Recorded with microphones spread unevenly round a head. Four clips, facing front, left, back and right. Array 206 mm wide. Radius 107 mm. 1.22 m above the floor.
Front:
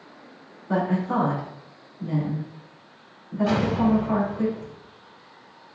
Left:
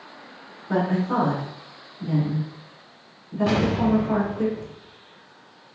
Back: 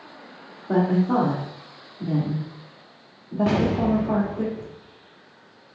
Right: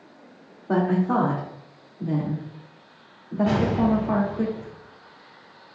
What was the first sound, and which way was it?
A woman speaking, 135° right.